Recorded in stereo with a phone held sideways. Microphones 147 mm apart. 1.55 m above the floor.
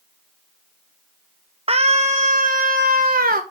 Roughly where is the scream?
Right.